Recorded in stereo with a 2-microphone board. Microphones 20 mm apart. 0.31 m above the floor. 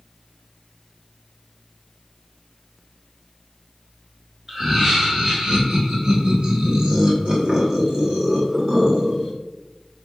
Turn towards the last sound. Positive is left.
turn(degrees=-35)  # may be behind; listen again after turning